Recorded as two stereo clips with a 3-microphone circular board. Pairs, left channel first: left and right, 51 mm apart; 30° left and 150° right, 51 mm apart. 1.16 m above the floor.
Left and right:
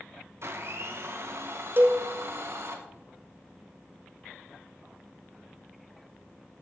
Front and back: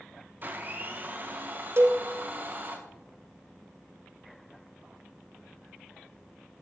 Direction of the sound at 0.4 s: 105° right.